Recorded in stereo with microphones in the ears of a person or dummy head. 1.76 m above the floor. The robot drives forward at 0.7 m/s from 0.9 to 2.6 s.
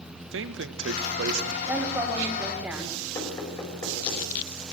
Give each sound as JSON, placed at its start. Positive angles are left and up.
{"t": 0.3, "sound": "a man speaking", "side_deg": -75, "distance_m": 1.7}
{"t": 1.7, "sound": "a woman speaking", "side_deg": -10, "distance_m": 6.0}
{"t": 3.1, "sound": "knocking", "side_deg": 20, "distance_m": 5.5}